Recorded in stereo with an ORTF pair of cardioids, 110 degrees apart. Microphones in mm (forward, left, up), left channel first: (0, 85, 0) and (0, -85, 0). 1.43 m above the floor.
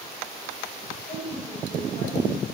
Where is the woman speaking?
35° left, 6.5 m.